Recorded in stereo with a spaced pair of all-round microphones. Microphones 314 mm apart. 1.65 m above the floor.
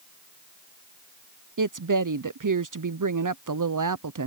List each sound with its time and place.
1.6 s a woman speaking: 75° right (ahead or behind)